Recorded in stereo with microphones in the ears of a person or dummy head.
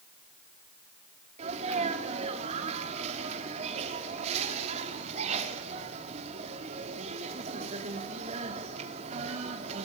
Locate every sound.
1.4 s a sneeze: 40° right (ahead or behind), 3.5 m